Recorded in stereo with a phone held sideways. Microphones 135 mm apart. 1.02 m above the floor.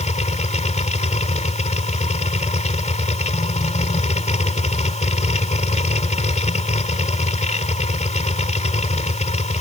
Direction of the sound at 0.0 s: 60° left (ahead or behind).